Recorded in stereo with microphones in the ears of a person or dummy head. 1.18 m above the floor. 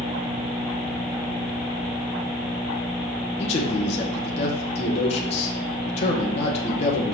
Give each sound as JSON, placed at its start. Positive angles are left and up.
{"t": 3.4, "sound": "a man speaking", "side_deg": 40, "distance_m": 1.0}